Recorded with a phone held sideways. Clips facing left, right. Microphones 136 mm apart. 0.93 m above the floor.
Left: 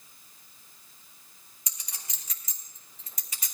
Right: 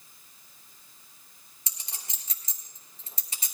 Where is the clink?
30° right (ahead or behind), 2.5 m.